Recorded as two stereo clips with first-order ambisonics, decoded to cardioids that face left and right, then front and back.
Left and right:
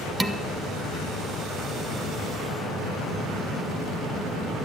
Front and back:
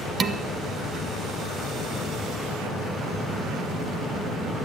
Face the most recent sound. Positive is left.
turn(degrees=-160)